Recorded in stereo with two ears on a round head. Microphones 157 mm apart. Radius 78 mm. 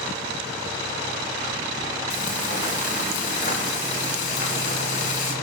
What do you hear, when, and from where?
2.1 s frying: 45° left (ahead or behind), 2.5 m